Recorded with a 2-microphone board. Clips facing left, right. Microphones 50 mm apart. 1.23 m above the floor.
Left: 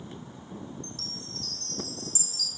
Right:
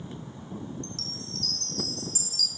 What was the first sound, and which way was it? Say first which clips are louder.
A chime: right 2 dB; 75° right (ahead or behind).